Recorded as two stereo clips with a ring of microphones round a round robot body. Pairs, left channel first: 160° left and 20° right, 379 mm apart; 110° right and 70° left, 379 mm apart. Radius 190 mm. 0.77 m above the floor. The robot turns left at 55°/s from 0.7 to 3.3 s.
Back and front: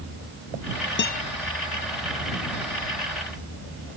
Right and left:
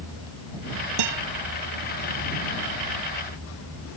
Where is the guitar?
95° left; by 1.2 s 80° left.